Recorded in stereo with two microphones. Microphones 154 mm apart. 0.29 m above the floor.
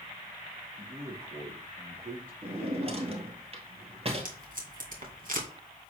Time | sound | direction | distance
0.8 | a man speaking | 65° right (ahead or behind) | 5.5 m
2.4 | a drawer | 40° right (ahead or behind) | 1.6 m
4.2 | tape being pulled | 65° right (ahead or behind) | 2 m